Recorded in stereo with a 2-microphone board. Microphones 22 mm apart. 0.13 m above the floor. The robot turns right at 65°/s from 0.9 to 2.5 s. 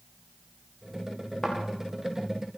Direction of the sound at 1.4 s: 35° left (ahead or behind).